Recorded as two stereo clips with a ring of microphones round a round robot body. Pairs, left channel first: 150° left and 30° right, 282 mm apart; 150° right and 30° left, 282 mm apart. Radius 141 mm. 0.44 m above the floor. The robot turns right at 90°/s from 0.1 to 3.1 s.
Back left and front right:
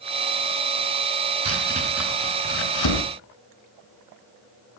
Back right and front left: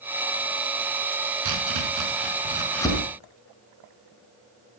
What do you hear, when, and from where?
1.4 s chopping: 5° left, 6 m; by 3.0 s 145° left, 6 m